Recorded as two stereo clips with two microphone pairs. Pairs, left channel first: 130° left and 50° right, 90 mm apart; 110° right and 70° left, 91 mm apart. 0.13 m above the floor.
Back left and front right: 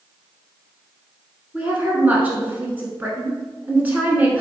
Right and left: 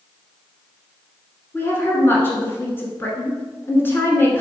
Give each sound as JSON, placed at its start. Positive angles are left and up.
{"t": 1.5, "sound": "a woman speaking", "azimuth_deg": -100, "distance_m": 1.1}